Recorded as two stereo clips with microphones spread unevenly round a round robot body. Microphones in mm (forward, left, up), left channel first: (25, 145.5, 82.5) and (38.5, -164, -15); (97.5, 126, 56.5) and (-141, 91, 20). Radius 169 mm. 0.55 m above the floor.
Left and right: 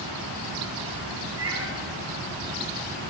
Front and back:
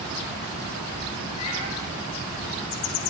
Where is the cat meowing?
40° right, 6.5 m.